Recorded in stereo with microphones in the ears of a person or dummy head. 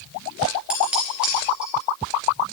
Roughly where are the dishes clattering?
Centre.